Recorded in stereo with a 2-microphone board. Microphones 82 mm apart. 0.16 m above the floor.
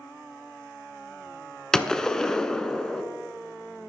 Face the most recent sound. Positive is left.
turn(degrees=10)  # may be behind; listen again after turning